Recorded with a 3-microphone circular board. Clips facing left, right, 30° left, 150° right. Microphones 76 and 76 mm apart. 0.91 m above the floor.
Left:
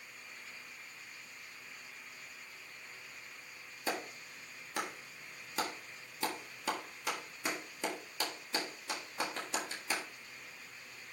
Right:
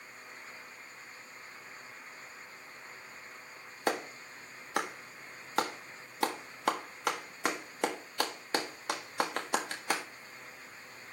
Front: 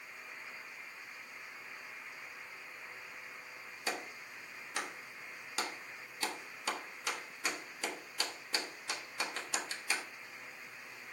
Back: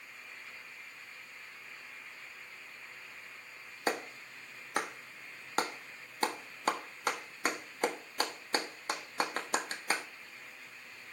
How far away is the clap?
About 1.5 m.